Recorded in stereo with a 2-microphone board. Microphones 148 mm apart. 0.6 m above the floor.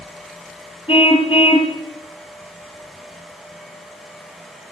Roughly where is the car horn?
Left.